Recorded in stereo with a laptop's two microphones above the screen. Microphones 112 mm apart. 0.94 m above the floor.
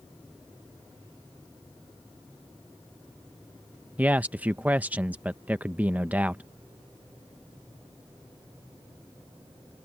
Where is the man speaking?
15° right (ahead or behind).